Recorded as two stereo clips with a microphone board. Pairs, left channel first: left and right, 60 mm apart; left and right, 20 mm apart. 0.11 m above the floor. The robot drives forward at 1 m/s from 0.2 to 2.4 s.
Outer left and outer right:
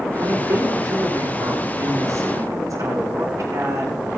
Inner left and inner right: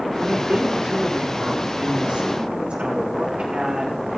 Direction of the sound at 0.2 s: 80° right.